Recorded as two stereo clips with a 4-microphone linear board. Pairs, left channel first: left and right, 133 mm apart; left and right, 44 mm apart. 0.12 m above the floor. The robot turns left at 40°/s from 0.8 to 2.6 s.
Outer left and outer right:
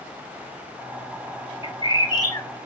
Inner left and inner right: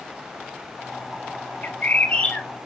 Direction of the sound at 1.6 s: 65° left.